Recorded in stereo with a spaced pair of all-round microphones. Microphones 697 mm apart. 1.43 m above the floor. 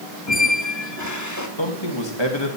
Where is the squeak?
25° left (ahead or behind), 1.3 m.